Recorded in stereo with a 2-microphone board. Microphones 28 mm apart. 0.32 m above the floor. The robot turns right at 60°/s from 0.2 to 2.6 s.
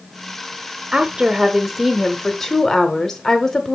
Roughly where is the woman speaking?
Right.